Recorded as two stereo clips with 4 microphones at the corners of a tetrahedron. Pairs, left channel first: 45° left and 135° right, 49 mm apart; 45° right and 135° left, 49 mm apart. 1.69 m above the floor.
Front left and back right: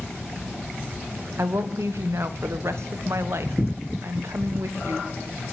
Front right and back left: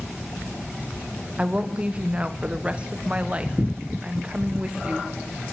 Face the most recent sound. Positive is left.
turn(degrees=-155)